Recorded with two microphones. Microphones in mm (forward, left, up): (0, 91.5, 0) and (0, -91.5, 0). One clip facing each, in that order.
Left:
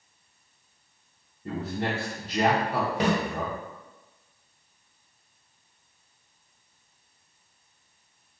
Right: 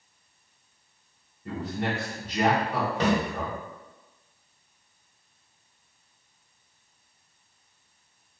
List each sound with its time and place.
1.4 s a man speaking: 30° left (ahead or behind), 0.7 m
3.0 s a snare drum: 15° left (ahead or behind), 1.1 m